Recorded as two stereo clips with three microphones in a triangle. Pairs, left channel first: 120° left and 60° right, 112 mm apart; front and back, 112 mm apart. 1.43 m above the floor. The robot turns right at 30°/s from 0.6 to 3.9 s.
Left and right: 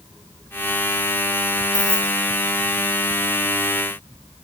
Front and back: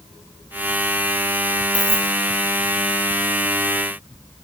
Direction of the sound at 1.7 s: 15° right.